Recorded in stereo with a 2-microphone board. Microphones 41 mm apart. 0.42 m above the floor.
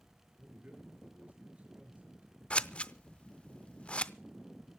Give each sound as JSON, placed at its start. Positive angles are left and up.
{"t": 0.4, "sound": "a man speaking", "side_deg": -35, "distance_m": 5.5}
{"t": 2.5, "sound": "scissors", "side_deg": 25, "distance_m": 0.6}